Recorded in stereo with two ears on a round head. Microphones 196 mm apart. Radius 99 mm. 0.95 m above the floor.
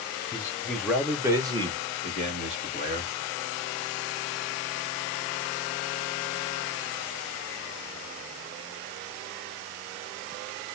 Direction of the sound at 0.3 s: 15° left (ahead or behind).